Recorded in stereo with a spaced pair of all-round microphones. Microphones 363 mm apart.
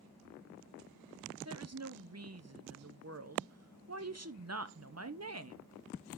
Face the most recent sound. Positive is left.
turn(degrees=-45)  # may be behind; listen again after turning